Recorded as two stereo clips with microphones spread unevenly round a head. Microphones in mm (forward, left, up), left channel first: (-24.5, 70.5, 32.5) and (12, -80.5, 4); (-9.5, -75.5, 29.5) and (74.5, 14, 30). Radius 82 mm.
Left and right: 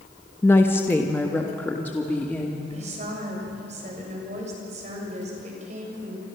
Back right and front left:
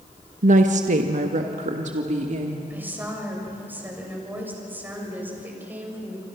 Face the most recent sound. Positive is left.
turn(degrees=-25)